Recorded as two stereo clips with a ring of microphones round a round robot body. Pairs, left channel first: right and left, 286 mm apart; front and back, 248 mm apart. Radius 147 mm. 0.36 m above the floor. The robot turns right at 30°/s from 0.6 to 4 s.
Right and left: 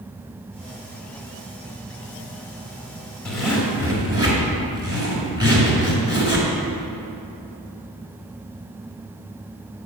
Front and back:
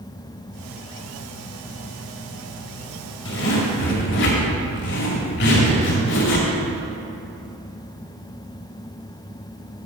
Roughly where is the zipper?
Ahead.